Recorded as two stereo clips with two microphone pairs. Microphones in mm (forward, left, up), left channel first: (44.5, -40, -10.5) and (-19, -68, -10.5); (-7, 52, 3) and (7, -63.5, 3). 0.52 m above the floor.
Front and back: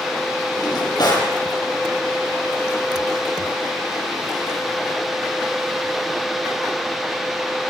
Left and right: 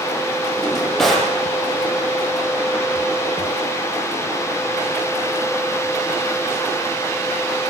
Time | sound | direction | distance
0.6 | a drawer | 10° left | 8.5 m